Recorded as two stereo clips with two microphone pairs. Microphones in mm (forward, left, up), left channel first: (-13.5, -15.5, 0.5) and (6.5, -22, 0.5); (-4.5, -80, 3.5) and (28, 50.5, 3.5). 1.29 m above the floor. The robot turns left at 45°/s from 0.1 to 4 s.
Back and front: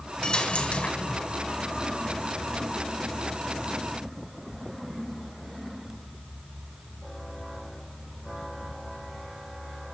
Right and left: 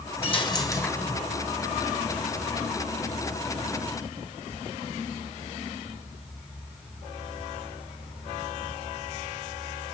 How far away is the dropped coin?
About 3 m.